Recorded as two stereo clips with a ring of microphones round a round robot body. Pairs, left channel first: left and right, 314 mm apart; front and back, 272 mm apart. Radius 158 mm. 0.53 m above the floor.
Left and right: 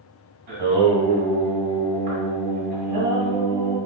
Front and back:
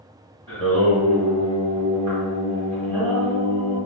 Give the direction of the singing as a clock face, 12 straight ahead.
3 o'clock.